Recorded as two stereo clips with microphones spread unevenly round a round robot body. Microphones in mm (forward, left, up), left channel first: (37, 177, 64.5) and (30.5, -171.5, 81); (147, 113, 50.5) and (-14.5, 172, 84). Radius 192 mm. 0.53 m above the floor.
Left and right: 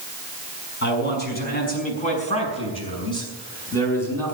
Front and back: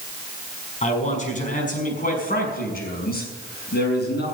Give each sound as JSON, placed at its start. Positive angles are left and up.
{"t": 0.8, "sound": "a man speaking", "azimuth_deg": 30, "distance_m": 5.5}